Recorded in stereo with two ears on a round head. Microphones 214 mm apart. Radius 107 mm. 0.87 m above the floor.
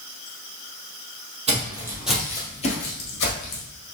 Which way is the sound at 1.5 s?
30° right (ahead or behind).